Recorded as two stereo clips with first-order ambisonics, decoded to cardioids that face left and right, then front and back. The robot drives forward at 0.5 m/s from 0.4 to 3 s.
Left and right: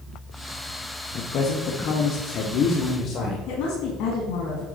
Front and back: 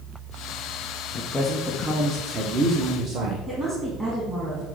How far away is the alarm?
No alarm in this recording.